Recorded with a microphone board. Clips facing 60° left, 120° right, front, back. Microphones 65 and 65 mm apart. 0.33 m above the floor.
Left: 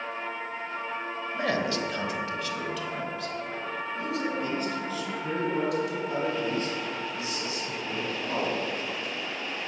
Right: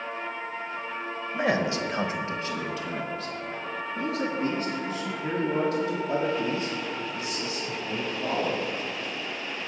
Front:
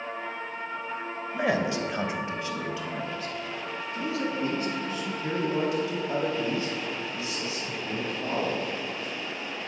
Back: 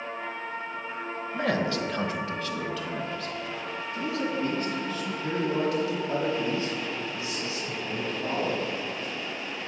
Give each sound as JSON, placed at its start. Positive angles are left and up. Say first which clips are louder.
{"t": 1.3, "sound": "a man speaking", "louder": "right 3 dB, front 1 dB", "azimuth_deg": -65, "distance_m": 1.0}